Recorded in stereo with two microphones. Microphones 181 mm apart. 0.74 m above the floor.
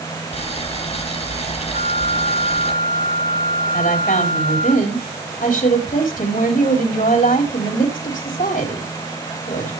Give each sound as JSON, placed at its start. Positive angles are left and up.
{"t": 0.3, "sound": "boiling", "side_deg": 35, "distance_m": 3.5}
{"t": 1.7, "sound": "a flute", "side_deg": 65, "distance_m": 1.5}
{"t": 3.7, "sound": "a woman speaking", "side_deg": 45, "distance_m": 4.0}